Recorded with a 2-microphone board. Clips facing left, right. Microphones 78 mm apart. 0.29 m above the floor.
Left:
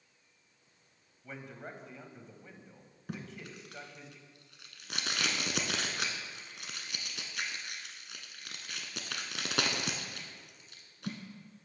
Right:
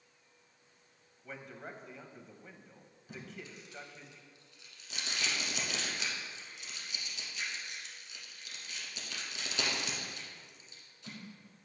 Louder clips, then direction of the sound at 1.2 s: Left 1 dB; centre (ahead or behind).